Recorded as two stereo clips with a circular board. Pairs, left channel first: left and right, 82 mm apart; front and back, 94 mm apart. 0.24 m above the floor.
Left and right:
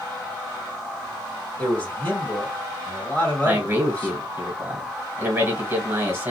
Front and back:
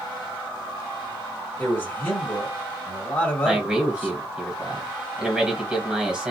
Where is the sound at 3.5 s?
110° right, 1.1 m.